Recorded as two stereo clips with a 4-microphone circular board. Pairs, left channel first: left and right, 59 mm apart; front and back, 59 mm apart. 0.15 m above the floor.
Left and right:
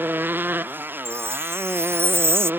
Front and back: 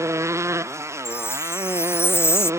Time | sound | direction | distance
0.0 | a motorcycle | 145° right | ?
1.1 | a chime | 45° right | ?